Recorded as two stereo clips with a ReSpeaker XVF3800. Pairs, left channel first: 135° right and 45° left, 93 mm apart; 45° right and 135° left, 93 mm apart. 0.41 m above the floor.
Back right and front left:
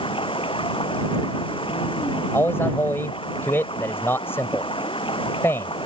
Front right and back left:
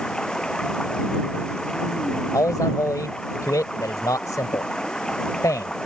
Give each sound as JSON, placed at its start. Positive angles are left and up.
{"t": 0.0, "sound": "running water", "azimuth_deg": -125}
{"t": 2.3, "sound": "a man speaking", "azimuth_deg": -80}